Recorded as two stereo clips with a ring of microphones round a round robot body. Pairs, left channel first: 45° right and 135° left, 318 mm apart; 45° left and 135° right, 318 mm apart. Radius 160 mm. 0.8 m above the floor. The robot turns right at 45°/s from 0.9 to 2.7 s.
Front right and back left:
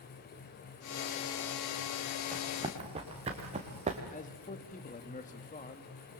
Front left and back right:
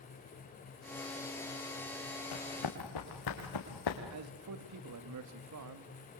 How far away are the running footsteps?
About 4.5 m.